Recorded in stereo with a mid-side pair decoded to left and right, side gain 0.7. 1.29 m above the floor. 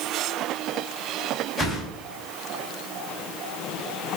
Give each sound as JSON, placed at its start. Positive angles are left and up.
{"t": 1.6, "sound": "a whoosh", "azimuth_deg": 15, "distance_m": 4.0}